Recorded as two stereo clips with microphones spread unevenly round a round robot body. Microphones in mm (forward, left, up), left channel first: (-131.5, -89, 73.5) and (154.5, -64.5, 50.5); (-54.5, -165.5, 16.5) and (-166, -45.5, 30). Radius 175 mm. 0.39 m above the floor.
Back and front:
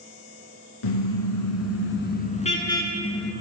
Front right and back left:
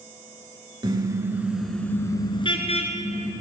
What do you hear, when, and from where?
0.8 s a car horn: 165° right, 2.5 m; by 3.3 s 85° right, 2.5 m